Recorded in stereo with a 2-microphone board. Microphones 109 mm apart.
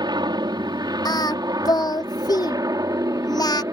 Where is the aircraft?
40° right (ahead or behind); by 3.7 s 30° right (ahead or behind).